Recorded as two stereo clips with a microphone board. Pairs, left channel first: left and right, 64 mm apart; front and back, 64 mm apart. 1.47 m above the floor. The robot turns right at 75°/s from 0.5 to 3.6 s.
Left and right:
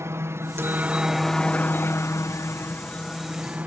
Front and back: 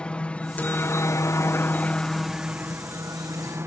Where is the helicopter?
65° right; by 3.7 s 145° right.